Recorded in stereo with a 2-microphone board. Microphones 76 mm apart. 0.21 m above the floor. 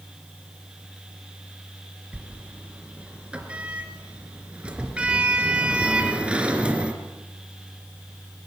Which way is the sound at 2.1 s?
15° right (ahead or behind).